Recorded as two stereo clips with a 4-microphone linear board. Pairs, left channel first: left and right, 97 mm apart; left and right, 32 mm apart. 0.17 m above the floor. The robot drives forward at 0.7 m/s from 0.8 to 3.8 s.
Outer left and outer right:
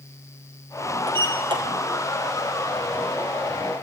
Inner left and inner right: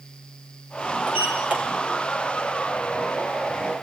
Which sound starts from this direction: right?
A sliding door, at 1.1 s.